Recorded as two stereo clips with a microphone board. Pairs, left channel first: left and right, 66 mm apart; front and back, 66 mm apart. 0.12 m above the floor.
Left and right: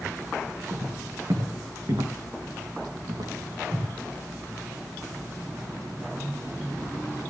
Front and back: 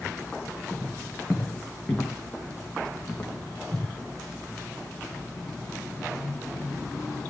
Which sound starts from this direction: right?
Footsteps, at 0.7 s.